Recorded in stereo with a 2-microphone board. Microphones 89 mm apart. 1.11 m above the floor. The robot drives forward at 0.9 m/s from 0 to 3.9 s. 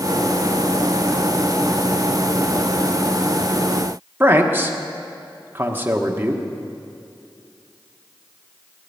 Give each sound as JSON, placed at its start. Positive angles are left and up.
{"t": 4.2, "sound": "a man speaking", "side_deg": -25, "distance_m": 1.3}